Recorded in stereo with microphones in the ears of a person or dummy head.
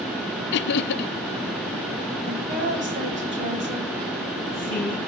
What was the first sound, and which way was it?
Laughter, 55° left (ahead or behind).